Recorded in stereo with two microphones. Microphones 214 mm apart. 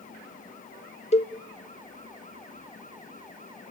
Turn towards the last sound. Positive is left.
turn(degrees=30)  # may be behind; listen again after turning